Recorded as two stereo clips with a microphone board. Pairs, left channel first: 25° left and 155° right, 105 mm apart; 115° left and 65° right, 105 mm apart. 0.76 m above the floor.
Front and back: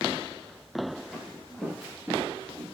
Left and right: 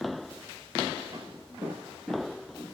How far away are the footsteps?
About 0.8 m.